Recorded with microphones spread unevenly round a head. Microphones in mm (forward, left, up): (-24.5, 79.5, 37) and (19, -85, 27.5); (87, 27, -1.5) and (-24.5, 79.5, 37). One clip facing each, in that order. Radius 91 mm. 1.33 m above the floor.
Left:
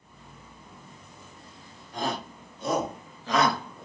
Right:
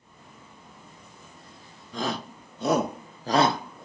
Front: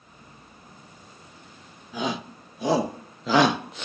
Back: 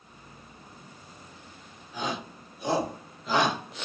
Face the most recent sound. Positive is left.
turn(degrees=25)